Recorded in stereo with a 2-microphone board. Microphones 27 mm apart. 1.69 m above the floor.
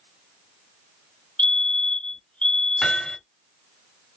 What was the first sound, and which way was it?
A fire alarm, 45° left (ahead or behind).